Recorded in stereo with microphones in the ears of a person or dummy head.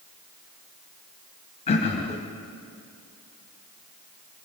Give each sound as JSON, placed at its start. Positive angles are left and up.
{"t": 1.7, "sound": "throat clearing", "side_deg": 35, "distance_m": 1.3}